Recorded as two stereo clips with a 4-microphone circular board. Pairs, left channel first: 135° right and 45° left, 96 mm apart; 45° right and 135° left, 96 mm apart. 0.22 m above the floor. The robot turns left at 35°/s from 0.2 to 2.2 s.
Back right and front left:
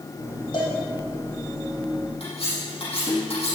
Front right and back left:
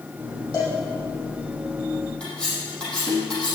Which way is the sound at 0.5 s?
95° right.